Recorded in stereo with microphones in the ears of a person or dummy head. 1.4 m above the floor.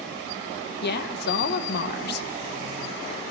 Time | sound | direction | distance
0.8 | a woman speaking | 60° left (ahead or behind) | 0.8 m